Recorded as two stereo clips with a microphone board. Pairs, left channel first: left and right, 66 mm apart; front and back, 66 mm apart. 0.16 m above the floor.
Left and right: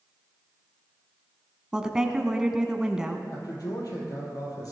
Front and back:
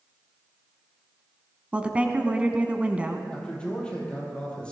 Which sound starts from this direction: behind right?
A woman speaking, at 1.7 s.